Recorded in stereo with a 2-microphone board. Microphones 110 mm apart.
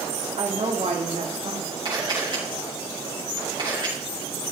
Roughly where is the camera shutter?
Right.